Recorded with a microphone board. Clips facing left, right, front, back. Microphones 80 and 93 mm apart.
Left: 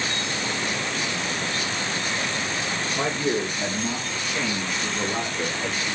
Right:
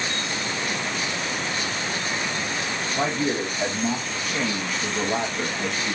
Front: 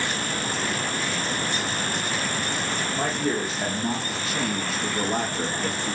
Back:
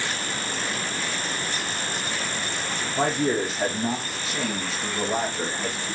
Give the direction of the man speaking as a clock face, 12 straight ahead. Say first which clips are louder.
Right 1 dB, back 4 dB; 5 o'clock.